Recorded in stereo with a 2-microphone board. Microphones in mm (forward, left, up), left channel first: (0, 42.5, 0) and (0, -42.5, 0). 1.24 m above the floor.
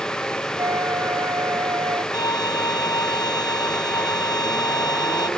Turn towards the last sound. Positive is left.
turn(degrees=50)  # may be behind; listen again after turning